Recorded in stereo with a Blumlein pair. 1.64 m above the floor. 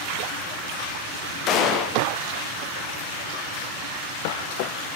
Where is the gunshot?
35° left, 0.6 m.